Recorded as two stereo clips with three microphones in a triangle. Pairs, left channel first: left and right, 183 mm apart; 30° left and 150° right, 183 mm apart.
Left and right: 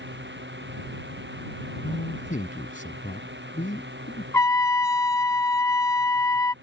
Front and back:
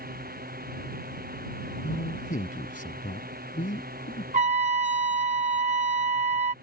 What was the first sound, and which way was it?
A drone, 110° right.